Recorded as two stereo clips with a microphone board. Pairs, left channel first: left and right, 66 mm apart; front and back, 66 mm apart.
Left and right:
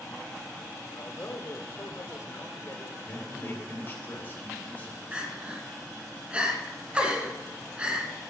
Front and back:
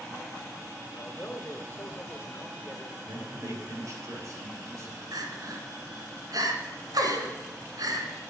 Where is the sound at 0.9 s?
50° left, 1.4 m.